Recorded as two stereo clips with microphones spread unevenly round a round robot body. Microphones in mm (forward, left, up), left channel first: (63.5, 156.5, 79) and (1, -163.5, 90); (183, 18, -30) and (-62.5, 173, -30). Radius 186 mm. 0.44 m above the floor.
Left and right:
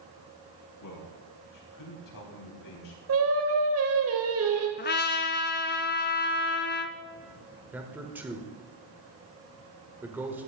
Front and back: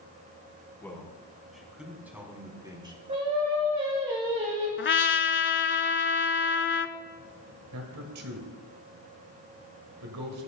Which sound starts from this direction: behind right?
Singing, at 3.1 s.